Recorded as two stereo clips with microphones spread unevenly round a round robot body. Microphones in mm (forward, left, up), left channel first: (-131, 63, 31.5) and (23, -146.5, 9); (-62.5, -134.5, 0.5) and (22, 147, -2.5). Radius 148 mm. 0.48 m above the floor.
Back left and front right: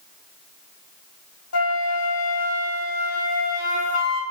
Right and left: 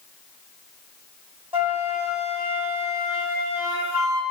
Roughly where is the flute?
Behind left.